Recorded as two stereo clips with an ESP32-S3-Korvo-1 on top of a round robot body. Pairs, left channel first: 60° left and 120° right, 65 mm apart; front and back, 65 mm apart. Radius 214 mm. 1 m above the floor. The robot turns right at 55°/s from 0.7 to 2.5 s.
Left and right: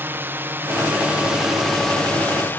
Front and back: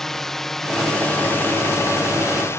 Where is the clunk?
No clunk in this recording.